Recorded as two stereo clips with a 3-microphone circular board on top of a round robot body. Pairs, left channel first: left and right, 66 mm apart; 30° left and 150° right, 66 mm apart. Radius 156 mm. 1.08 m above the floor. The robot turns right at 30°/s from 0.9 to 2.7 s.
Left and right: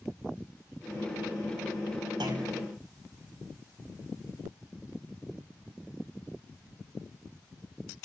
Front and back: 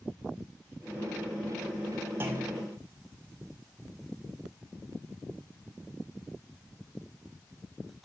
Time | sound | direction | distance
2.2 | a clunk | 95° right | 2 m